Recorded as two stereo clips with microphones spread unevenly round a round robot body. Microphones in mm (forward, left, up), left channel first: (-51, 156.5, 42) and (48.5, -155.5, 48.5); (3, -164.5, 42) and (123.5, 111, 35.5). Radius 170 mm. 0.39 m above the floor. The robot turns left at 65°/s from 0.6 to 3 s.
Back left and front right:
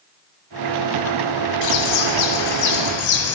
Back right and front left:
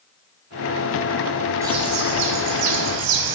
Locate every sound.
1.6 s a bird: 150° left, 1.1 m; by 3.4 s 60° left, 1.1 m